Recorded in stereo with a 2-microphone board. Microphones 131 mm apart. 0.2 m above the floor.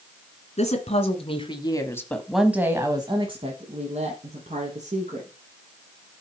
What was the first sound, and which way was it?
A woman speaking, 55° left (ahead or behind).